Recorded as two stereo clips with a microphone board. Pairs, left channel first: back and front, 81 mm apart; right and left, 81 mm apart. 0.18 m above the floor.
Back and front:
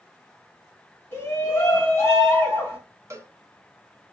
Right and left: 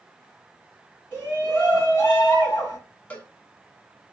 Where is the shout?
140° right, 1.7 m.